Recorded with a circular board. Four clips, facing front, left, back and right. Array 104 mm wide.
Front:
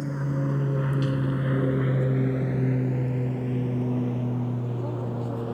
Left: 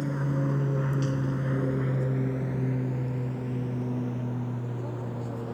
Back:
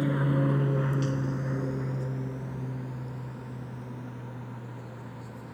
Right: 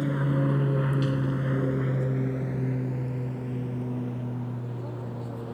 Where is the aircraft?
145° right; by 5.5 s 10° left.